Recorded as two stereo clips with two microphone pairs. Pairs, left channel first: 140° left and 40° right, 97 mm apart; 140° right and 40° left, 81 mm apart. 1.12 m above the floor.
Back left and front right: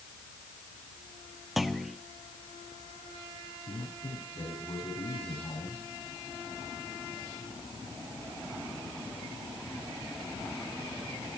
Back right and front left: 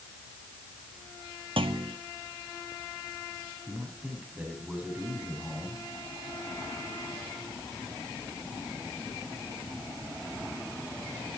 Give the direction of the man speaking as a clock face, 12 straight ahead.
8 o'clock.